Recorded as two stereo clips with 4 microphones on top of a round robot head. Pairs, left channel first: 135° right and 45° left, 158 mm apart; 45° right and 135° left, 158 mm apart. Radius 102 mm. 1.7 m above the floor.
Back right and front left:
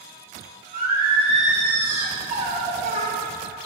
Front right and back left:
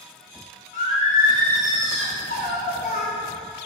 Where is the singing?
5° right, 3 m.